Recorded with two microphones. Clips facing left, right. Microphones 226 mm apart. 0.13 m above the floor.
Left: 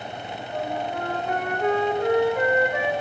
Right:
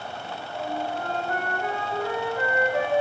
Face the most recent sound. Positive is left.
turn(degrees=65)  # may be behind; listen again after turning